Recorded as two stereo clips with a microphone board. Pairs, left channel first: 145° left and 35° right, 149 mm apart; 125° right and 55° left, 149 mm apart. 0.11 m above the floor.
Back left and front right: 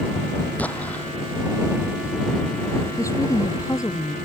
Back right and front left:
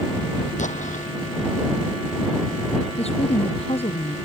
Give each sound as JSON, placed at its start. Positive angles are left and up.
{"t": 0.6, "sound": "an explosion", "azimuth_deg": -135}
{"t": 3.0, "sound": "a woman speaking", "azimuth_deg": -150}